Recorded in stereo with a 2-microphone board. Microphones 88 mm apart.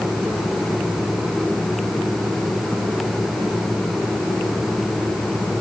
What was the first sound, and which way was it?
Only background noise.